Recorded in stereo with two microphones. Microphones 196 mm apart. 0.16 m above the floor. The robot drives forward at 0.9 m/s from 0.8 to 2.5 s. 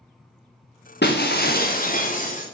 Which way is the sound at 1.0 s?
60° left (ahead or behind).